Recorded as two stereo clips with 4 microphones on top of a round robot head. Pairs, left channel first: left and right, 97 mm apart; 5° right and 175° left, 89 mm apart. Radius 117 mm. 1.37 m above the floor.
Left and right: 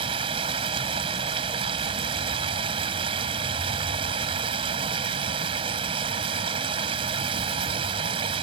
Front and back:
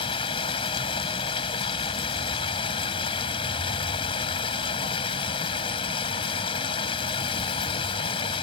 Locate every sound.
0.0 s running water: 45° right